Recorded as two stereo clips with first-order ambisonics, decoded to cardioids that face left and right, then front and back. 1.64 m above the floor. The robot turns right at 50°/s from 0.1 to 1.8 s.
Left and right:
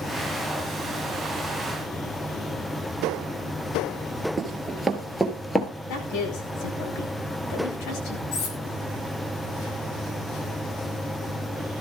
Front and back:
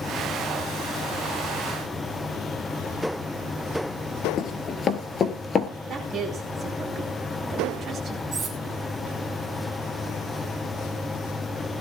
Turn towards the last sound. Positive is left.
turn(degrees=110)